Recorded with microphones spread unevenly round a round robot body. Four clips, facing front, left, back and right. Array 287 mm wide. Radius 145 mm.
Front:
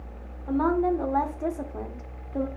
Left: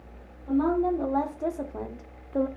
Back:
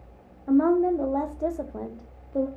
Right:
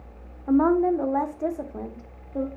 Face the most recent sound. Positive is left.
turn(degrees=70)